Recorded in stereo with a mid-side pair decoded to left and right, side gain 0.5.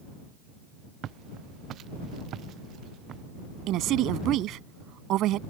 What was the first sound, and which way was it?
Footsteps, 60° right.